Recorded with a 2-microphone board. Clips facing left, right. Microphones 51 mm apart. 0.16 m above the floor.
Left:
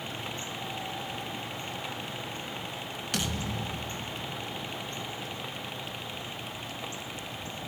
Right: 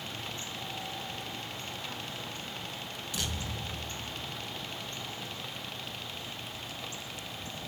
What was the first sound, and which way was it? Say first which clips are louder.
A thud: left 5 dB; 60° left (ahead or behind).